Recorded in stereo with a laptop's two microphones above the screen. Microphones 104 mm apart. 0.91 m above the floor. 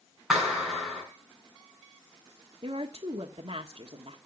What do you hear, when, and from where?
0.3 s a clap: 5° right (ahead or behind), 6 m
2.6 s a woman speaking: 55° right (ahead or behind), 1.5 m